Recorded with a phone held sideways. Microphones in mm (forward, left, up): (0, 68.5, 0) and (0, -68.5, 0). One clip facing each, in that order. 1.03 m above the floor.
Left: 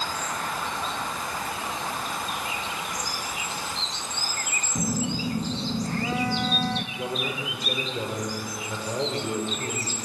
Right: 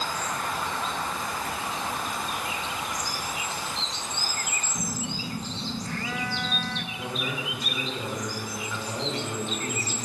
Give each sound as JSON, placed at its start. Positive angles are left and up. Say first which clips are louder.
{"t": 4.8, "sound": "a phone buzzing", "louder": "left 8 dB", "side_deg": 35, "distance_m": 1.0}
{"t": 7.0, "sound": "a man speaking", "louder": "left 2 dB", "side_deg": 35, "distance_m": 4.5}